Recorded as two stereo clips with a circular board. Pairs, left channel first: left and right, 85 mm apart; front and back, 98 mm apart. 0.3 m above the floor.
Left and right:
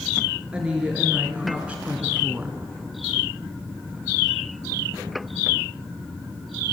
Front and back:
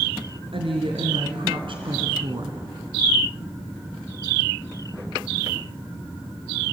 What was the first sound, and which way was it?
A woman speaking, 165° right.